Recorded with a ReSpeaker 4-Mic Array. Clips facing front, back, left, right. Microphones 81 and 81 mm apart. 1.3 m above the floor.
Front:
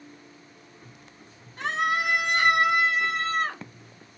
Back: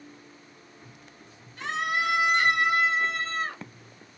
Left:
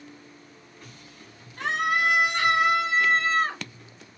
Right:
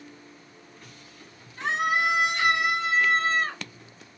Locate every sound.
1.6 s a scream: 55° left, 2.5 m; by 3.6 s 25° left, 2.5 m